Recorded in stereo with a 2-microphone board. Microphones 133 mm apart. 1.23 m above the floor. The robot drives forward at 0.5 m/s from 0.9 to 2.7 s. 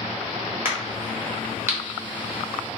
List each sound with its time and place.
0.7 s a crack: 15° right (ahead or behind), 1.4 m; by 1.8 s 20° right (ahead or behind), 1.1 m